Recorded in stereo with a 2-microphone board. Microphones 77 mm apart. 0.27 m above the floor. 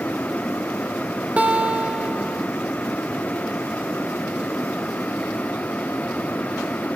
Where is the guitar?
20° right (ahead or behind), 0.5 m.